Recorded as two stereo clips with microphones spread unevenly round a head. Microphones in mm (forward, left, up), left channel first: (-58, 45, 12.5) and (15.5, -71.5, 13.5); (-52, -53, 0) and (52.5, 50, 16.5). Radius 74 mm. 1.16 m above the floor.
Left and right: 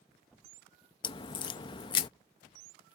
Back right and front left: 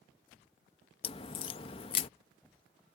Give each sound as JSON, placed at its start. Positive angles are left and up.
{"t": 1.0, "sound": "a crack", "azimuth_deg": 170}